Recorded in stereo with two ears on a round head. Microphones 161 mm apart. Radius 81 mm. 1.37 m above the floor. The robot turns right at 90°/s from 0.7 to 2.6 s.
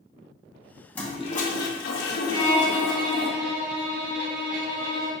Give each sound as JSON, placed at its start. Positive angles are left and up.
{"t": 0.9, "sound": "a toilet flushing", "azimuth_deg": 5, "distance_m": 0.8}
{"t": 2.3, "sound": "a violin", "side_deg": -35, "distance_m": 1.8}